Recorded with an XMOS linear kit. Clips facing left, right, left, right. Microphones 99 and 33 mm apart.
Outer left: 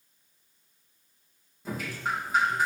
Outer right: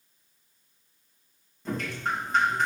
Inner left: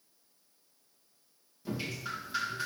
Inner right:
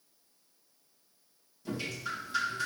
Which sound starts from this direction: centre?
Dripping, at 1.6 s.